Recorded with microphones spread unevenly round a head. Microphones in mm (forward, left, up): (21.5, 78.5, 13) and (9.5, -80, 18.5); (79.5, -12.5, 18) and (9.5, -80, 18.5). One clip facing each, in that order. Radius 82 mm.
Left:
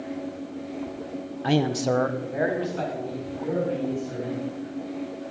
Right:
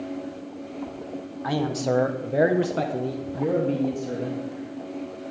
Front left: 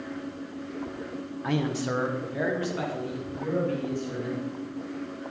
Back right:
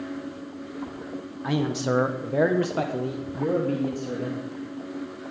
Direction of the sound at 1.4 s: 135° left.